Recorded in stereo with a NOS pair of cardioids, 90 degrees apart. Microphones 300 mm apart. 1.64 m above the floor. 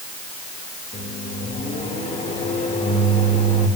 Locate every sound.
0.9 s a microwave: 25° left, 1.9 m